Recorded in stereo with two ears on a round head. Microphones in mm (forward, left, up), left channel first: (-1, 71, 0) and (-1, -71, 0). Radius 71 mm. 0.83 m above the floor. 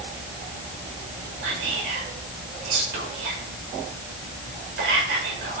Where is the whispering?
80° right, 2.5 m.